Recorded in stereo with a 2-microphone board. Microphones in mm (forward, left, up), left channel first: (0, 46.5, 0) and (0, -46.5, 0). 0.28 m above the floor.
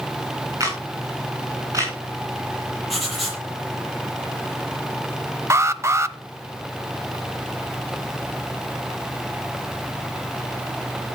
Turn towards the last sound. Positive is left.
turn(degrees=-30)  # may be behind; listen again after turning